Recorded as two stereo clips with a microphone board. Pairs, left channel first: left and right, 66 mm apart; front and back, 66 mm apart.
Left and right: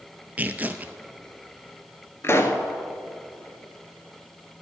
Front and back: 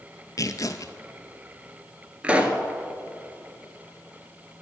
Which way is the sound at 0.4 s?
25° right.